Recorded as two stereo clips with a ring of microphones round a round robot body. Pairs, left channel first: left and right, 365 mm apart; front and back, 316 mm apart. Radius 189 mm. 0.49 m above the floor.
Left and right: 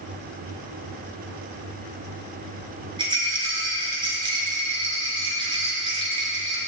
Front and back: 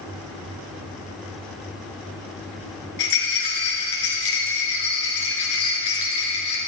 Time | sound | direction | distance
3.0 | a rattle | 10° right | 4.5 m